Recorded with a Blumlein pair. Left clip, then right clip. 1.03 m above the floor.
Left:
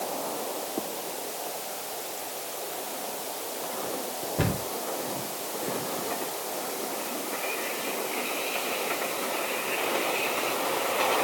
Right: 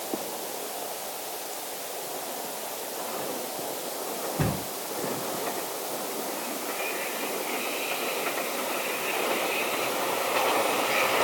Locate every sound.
4.4 s a cupboard door: 25° left, 5 m